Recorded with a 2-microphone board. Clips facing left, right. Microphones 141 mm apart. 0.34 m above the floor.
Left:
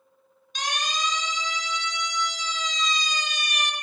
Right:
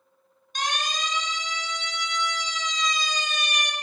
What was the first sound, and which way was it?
A siren, 50° right (ahead or behind).